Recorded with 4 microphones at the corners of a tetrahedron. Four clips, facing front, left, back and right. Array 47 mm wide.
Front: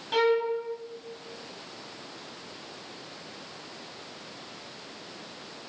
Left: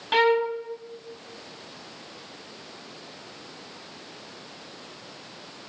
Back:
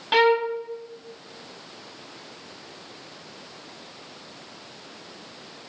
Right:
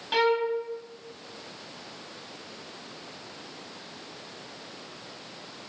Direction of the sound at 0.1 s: 150° left.